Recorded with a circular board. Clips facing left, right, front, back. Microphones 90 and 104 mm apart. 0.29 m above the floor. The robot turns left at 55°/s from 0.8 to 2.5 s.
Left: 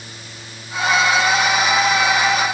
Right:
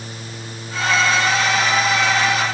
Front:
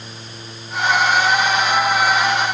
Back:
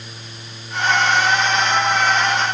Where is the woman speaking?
No woman speaking in this recording.